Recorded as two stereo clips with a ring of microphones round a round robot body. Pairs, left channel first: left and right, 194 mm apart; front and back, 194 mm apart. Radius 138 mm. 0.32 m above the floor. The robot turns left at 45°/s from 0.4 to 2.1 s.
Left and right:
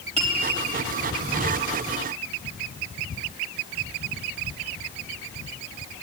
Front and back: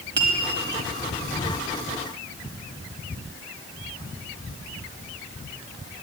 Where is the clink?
145° right, 1.4 m.